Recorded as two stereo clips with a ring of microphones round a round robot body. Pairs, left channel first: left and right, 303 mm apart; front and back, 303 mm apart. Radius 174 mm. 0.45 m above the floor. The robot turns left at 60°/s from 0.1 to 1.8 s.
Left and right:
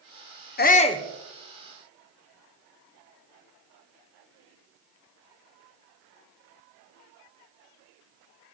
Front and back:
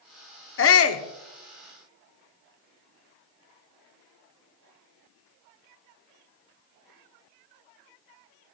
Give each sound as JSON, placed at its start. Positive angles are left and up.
{"t": 0.6, "sound": "a shout", "azimuth_deg": 40, "distance_m": 1.1}